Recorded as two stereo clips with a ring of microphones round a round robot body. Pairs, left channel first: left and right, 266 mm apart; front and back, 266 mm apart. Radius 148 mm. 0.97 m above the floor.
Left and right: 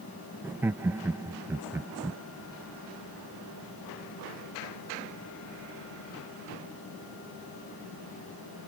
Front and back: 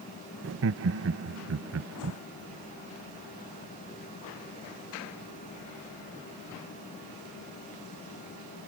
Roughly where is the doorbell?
No doorbell in this recording.